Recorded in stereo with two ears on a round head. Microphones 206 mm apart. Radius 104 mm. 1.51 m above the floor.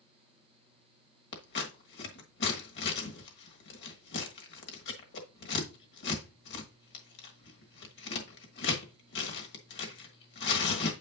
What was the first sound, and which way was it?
Scissors, 50° left (ahead or behind).